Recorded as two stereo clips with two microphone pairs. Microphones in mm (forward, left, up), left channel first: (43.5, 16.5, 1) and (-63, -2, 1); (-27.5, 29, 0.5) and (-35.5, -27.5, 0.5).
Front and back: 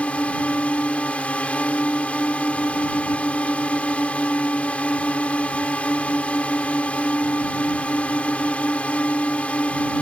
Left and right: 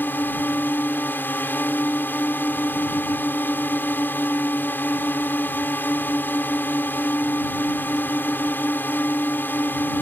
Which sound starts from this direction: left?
A drone, at 0.0 s.